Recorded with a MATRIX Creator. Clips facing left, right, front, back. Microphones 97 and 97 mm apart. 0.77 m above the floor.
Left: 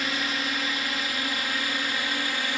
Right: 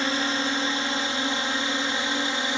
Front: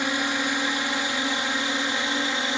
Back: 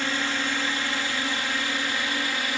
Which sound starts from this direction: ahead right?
A drone, at 0.0 s.